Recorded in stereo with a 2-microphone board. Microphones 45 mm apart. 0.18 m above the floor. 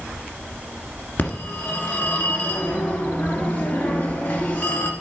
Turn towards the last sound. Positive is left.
turn(degrees=50)  # may be behind; listen again after turning